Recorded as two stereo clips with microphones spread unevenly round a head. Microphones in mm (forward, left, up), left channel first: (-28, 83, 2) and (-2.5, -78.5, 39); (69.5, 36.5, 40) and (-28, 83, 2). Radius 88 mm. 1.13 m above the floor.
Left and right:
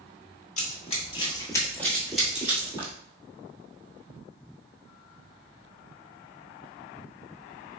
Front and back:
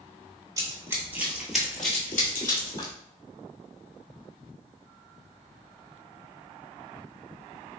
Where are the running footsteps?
90° left, 1.2 m; by 2.9 s 25° right, 1.5 m.